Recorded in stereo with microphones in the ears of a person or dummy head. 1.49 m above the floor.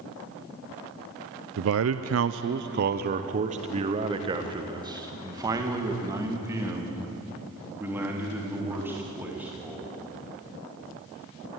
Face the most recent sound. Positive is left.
turn(degrees=-5)  # may be behind; listen again after turning